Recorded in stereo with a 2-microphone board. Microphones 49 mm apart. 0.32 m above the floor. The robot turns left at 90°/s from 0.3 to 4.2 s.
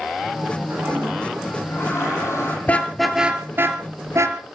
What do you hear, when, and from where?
0.7 s a toilet flushing: 135° right, 9 m; by 2.6 s 55° left, 9 m
2.7 s a car horn: 35° left (ahead or behind), 2.5 m; by 4.5 s 75° right (ahead or behind), 2.5 m